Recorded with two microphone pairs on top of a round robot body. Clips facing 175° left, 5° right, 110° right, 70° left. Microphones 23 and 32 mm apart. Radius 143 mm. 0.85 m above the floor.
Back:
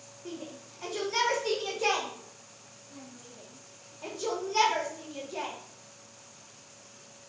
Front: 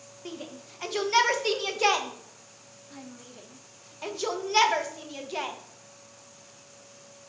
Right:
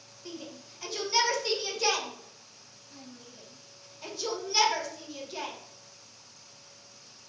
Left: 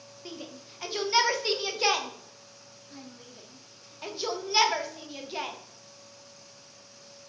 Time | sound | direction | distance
0.2 | a shout | 15° left | 1.0 m